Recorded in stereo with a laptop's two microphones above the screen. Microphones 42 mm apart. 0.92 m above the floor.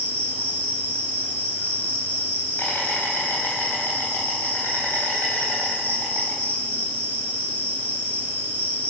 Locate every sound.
0.0 s an insect: 50° left (ahead or behind), 3.5 m